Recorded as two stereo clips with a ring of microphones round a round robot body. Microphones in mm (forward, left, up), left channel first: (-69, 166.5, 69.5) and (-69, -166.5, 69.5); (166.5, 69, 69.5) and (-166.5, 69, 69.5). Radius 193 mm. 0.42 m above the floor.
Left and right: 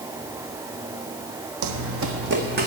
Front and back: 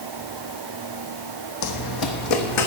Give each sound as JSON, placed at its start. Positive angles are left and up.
{"t": 1.6, "sound": "running footsteps", "azimuth_deg": -45, "distance_m": 1.1}